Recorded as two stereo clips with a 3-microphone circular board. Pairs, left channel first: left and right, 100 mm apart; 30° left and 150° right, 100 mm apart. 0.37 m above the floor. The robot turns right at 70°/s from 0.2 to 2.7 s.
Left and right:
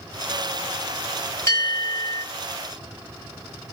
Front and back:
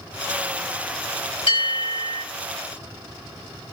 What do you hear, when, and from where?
1.5 s a bell: 30° left, 1.6 m; by 2.2 s 85° left, 1.6 m